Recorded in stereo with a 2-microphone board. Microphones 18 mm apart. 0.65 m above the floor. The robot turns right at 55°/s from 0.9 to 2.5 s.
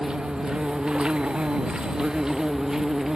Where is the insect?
125° right; by 3.2 s 40° right.